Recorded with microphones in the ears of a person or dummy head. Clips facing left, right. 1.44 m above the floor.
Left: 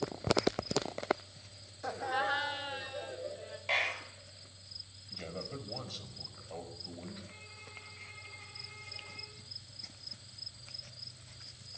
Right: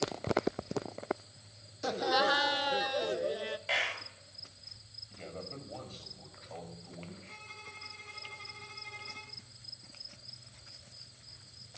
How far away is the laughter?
About 0.6 m.